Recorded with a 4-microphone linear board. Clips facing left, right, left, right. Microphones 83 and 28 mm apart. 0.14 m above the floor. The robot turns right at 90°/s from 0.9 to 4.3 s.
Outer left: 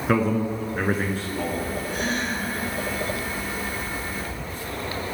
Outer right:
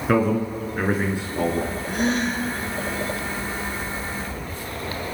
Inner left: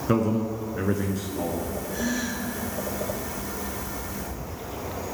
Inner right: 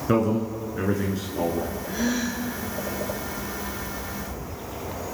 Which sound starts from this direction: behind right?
A gasp, at 1.9 s.